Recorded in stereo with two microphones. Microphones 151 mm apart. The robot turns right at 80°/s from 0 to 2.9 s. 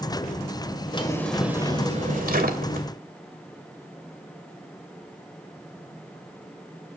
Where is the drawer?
145° left, 2.5 m; by 2.9 s 60° right, 2.5 m.